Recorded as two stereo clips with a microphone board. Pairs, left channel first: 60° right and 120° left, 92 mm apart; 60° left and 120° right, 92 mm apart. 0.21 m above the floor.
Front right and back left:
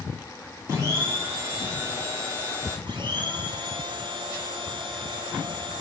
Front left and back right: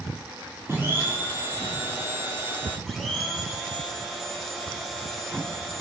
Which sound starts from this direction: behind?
A blender, at 0.7 s.